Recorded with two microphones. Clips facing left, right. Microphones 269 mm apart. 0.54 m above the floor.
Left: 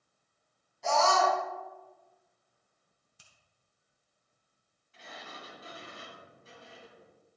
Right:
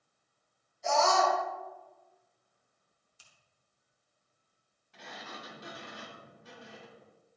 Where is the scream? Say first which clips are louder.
Even; 70° left (ahead or behind), 4.5 m.